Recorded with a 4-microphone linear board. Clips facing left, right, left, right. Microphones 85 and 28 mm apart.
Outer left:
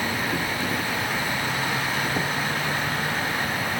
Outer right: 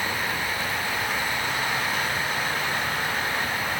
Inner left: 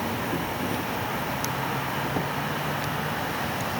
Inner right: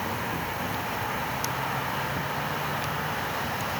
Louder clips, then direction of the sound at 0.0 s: Outer left 2 dB, inner left 2 dB; 70° left (ahead or behind).